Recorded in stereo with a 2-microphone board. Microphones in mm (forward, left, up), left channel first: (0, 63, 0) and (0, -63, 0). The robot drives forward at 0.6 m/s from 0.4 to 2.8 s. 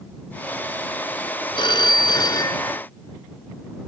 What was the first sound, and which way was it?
A phone ringing, 40° left (ahead or behind).